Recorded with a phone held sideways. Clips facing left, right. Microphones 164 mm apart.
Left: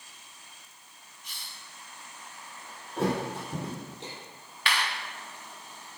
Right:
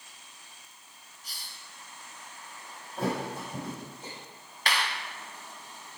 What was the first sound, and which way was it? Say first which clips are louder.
A hiss: left 1 dB; 35° right (ahead or behind).